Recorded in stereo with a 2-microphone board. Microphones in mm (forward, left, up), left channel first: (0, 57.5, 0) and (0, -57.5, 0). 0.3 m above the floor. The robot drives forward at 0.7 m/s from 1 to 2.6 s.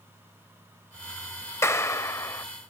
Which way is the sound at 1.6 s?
25° left (ahead or behind).